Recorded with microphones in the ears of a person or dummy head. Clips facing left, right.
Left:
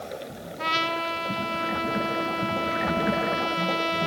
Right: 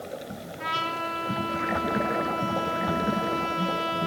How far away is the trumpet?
About 1.9 m.